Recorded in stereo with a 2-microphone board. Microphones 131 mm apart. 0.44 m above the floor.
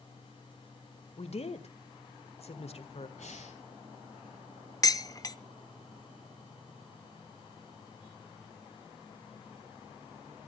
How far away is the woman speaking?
About 1.5 m.